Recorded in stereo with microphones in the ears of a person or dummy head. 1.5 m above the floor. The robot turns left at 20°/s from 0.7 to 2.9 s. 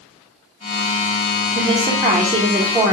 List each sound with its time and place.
1.6 s a woman speaking: 25° right (ahead or behind), 0.9 m; by 2.9 s centre (ahead or behind), 0.9 m